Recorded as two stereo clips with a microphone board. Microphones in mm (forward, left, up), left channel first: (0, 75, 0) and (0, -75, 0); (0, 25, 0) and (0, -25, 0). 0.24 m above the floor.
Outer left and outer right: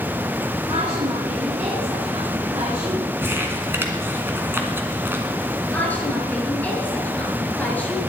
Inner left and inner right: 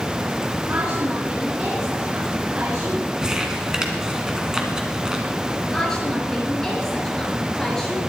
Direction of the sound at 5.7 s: 10° left (ahead or behind).